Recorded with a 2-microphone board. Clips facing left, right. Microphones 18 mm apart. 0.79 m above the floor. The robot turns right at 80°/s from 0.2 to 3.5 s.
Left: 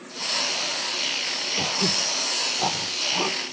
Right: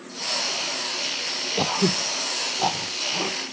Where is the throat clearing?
75° right (ahead or behind); by 3.4 s 45° left (ahead or behind).